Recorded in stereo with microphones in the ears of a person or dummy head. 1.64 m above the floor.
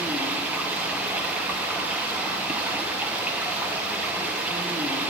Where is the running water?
10° right (ahead or behind), 1.0 m.